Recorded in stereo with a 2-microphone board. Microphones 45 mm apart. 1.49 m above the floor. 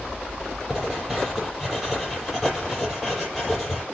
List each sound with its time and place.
0.7 s writing: centre (ahead or behind), 6 m